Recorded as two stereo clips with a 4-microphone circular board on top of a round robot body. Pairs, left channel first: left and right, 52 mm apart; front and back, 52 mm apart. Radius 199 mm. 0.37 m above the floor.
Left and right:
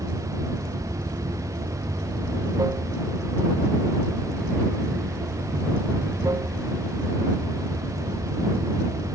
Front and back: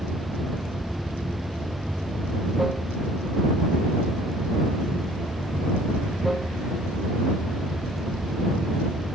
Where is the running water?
90° right.